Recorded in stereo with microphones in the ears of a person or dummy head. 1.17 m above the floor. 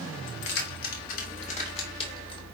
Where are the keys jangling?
70° left (ahead or behind), 1.9 m; by 2.4 s 30° left (ahead or behind), 3 m.